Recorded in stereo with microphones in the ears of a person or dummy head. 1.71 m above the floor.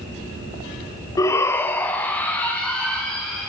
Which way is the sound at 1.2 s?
20° left (ahead or behind).